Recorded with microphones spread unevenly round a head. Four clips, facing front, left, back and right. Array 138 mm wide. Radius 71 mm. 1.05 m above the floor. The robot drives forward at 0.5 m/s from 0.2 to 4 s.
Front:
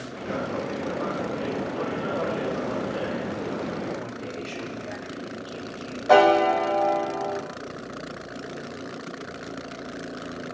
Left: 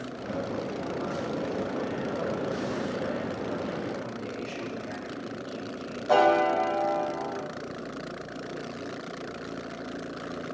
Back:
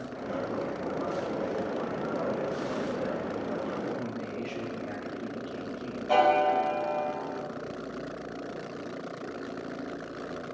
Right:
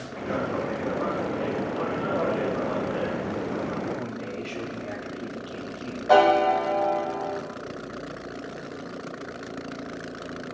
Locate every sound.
4.0 s a man speaking: 115° right, 2.5 m
6.1 s a piano: 20° right, 0.8 m